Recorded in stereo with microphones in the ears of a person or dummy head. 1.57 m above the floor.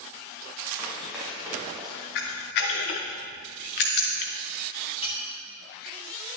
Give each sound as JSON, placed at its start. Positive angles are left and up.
{"t": 0.8, "sound": "running footsteps", "side_deg": -5, "distance_m": 4.0}
{"t": 2.1, "sound": "a camera shutter", "side_deg": 45, "distance_m": 0.8}
{"t": 5.0, "sound": "a clink", "side_deg": 25, "distance_m": 1.5}